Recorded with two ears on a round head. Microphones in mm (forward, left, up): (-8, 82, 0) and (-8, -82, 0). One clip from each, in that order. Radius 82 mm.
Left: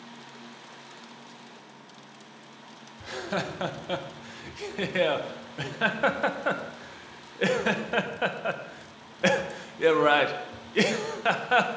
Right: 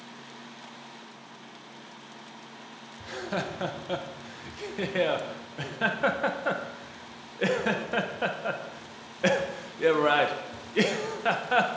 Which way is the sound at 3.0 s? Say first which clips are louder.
Left 1 dB; 15° left (ahead or behind).